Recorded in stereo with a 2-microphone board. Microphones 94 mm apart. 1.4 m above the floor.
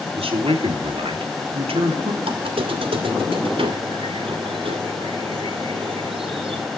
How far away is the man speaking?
About 3 m.